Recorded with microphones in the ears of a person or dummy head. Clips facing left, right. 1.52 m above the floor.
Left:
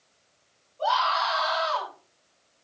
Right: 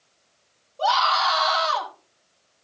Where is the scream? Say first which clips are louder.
Right 3 dB; 70° right (ahead or behind), 3.5 m.